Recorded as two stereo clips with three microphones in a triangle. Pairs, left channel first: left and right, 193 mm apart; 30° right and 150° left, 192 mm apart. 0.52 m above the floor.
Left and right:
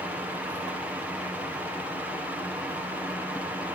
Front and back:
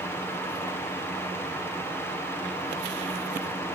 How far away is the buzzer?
No buzzer in this recording.